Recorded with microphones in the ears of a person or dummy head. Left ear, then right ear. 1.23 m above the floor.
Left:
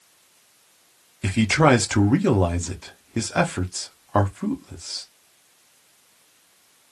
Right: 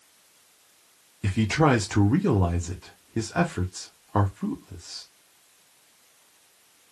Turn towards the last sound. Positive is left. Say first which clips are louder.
# left 4 dB
turn(degrees=20)  # may be behind; listen again after turning